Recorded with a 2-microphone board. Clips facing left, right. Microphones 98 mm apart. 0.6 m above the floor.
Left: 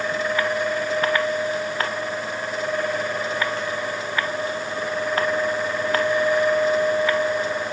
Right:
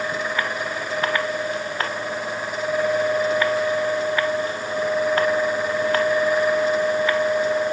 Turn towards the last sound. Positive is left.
No sound to turn to.